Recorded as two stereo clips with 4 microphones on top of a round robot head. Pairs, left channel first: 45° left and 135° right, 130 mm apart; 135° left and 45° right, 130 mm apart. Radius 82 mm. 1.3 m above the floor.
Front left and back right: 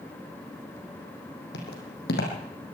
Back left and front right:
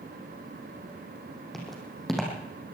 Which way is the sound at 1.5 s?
50° left.